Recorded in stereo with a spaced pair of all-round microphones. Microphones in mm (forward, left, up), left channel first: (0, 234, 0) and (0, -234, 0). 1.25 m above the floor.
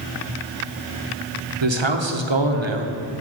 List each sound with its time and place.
1.6 s a man speaking: 70° right (ahead or behind), 1.1 m